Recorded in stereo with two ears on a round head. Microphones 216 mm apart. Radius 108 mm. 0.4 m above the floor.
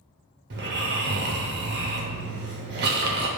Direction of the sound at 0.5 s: 45° right (ahead or behind).